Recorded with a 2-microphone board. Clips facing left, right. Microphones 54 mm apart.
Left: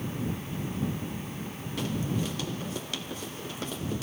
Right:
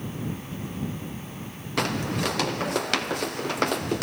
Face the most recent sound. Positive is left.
turn(degrees=-70)  # may be behind; listen again after turning